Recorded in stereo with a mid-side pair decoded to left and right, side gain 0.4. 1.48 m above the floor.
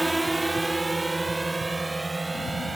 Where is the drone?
15° right; by 2.8 s 20° right.